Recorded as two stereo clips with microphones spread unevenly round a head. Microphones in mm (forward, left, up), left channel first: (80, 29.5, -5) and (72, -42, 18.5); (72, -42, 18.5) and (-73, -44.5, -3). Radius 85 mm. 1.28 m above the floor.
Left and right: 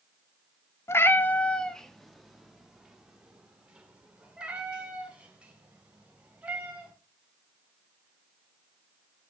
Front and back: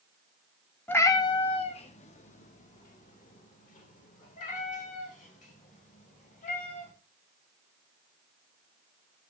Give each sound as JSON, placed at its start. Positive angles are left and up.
{"t": 0.9, "sound": "a cat meowing", "azimuth_deg": 35, "distance_m": 0.6}